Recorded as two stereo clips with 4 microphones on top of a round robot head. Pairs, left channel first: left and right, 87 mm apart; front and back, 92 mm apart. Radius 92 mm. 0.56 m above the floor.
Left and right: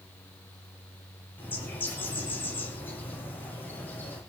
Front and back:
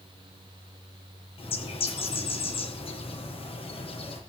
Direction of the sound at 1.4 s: 15° left.